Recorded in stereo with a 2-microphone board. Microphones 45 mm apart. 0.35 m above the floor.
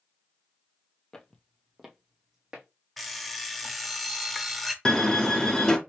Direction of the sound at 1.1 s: 20° left (ahead or behind).